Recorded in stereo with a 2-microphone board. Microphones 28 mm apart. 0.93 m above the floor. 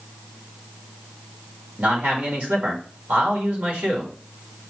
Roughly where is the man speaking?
Right.